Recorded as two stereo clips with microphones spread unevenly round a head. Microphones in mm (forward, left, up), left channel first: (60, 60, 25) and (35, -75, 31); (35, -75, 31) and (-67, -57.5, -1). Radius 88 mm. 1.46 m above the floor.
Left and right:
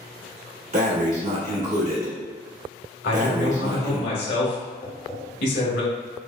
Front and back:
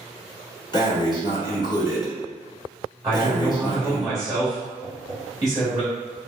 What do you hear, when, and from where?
0.7 s breathing: 65° right, 1.4 m
3.0 s a man speaking: 100° left, 1.2 m
4.8 s tapping: 30° left, 1.0 m